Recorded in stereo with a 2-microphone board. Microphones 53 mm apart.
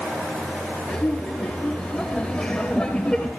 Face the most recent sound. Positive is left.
turn(degrees=15)  # may be behind; listen again after turning